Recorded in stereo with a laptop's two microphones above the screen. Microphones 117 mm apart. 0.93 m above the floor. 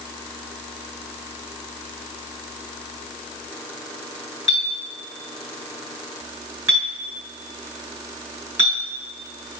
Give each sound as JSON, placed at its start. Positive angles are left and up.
{"t": 4.5, "sound": "a clink", "side_deg": -20, "distance_m": 5.5}